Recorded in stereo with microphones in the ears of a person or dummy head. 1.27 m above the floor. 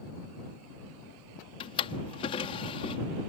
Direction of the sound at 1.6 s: 30° left (ahead or behind).